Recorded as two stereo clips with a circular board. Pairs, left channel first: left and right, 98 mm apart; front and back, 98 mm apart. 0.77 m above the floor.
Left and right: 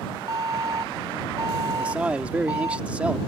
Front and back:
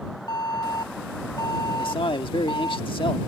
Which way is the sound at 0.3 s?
40° right.